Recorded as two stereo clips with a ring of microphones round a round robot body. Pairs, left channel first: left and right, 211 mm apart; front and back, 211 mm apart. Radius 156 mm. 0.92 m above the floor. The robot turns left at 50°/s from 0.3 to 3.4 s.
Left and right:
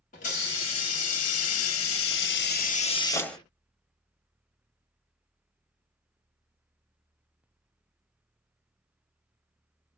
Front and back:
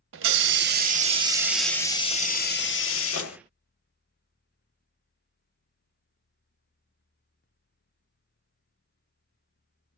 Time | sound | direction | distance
0.1 | a hiss | 155° left | 0.8 m